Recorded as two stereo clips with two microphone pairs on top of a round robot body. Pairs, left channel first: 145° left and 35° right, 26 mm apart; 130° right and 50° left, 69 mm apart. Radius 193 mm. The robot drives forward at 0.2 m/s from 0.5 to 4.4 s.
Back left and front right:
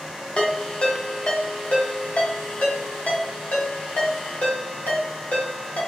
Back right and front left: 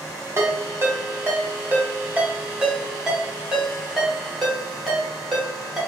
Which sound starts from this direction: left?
A ringtone, at 0.4 s.